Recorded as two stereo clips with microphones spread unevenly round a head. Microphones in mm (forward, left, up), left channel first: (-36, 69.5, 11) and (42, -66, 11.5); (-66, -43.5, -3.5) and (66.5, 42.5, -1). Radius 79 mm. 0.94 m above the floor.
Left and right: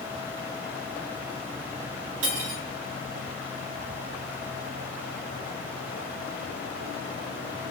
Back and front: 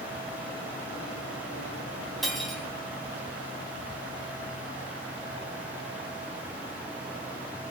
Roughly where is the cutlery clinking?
Ahead right.